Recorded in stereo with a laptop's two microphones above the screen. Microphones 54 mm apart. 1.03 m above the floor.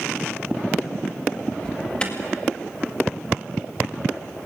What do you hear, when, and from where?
1.6 s an alarm: 20° left (ahead or behind), 2.0 m